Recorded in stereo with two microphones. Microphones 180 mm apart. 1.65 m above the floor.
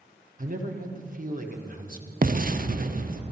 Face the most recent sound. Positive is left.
turn(degrees=-50)  # may be behind; listen again after turning